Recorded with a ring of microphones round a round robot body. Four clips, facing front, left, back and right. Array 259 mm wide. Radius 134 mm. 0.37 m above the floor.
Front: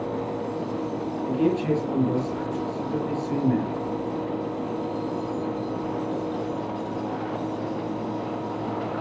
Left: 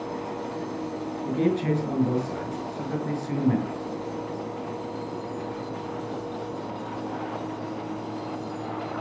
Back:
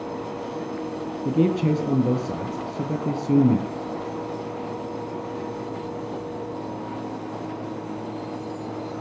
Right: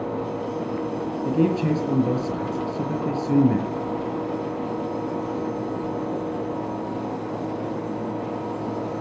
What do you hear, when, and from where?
1.2 s a man speaking: 140° right, 7.5 m